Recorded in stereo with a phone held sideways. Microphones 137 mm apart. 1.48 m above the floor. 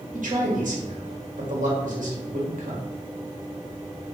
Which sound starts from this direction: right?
A man speaking, at 0.1 s.